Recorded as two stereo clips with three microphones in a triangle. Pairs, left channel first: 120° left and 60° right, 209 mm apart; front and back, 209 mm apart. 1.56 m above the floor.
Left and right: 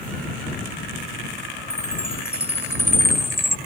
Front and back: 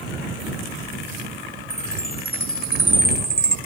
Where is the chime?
40° left.